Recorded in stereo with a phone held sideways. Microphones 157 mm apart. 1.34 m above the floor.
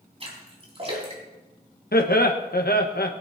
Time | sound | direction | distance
0.2 | a splash | 40° right (ahead or behind) | 4 m
1.9 | laughter | 75° left (ahead or behind) | 1.3 m